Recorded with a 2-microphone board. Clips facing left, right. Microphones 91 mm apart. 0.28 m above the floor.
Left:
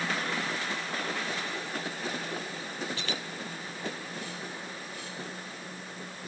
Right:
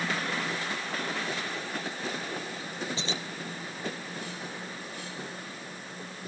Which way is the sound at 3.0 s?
25° right (ahead or behind).